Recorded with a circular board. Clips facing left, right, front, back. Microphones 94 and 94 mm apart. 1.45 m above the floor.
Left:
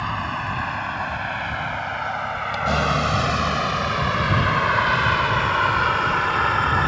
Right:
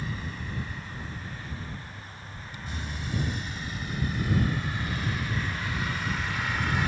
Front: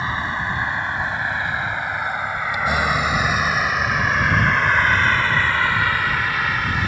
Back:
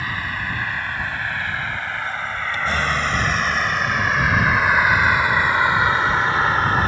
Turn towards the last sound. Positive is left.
turn(degrees=125)